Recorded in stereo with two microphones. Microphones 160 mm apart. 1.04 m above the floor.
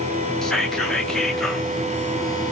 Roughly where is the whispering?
Centre.